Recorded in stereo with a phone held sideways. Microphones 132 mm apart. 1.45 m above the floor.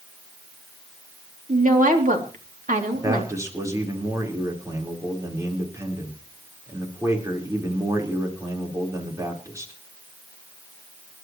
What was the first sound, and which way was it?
A woman speaking, 85° right.